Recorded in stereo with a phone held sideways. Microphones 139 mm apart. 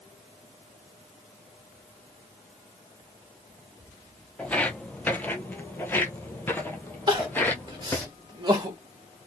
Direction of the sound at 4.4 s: 10° left (ahead or behind).